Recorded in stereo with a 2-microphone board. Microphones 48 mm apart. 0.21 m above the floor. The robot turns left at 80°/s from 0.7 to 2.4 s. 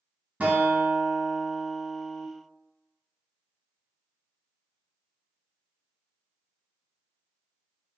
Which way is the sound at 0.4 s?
90° right.